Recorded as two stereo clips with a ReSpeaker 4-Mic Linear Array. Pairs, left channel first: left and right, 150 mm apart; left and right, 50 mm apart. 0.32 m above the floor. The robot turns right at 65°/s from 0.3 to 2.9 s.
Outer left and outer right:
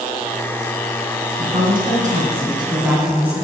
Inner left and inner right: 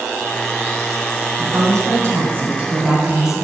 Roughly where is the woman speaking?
Right.